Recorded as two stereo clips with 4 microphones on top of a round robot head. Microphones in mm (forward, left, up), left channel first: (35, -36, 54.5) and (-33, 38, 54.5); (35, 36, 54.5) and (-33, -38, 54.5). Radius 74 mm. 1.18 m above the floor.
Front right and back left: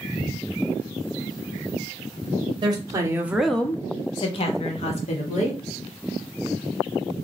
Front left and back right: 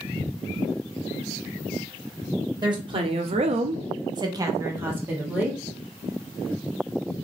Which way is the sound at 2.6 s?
Straight behind.